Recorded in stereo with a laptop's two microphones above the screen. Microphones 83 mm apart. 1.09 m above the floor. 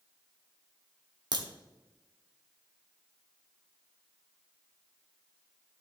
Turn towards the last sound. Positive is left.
turn(degrees=-60)  # may be behind; listen again after turning